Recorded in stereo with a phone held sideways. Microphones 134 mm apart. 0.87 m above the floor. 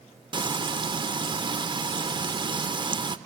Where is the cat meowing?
No cat meowing in this recording.